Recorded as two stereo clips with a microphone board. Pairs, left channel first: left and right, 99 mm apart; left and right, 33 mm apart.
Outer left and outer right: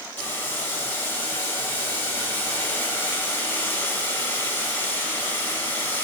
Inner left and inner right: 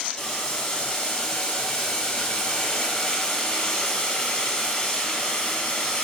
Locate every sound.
0.2 s boiling: 20° left (ahead or behind), 0.6 m